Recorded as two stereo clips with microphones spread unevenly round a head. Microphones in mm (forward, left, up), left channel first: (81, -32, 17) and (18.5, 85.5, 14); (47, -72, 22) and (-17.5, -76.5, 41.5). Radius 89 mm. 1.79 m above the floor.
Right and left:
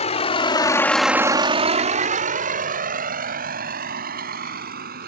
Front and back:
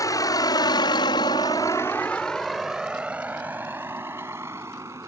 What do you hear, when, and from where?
0.0 s a vehicle: 25° right; by 5.1 s 115° left